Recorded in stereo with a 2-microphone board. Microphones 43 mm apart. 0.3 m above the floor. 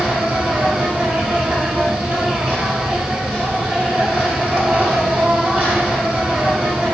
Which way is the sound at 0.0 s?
35° right (ahead or behind).